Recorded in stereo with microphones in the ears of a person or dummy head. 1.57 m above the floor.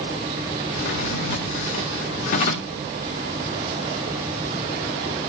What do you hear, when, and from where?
0.7 s a drawer: 50° left (ahead or behind), 1.4 m